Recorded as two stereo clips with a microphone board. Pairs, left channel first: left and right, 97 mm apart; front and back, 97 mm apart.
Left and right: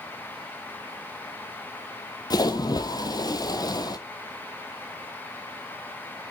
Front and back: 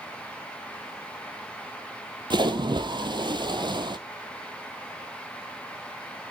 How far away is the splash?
About 1.0 m.